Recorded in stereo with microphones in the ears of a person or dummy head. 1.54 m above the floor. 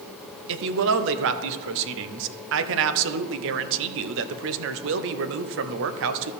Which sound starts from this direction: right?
A woman speaking, at 0.5 s.